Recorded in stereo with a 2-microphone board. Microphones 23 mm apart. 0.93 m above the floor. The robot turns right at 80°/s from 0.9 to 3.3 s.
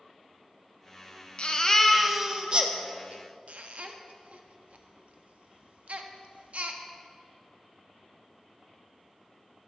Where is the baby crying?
50° left (ahead or behind), 0.7 m; by 6.8 s 75° right (ahead or behind), 0.7 m.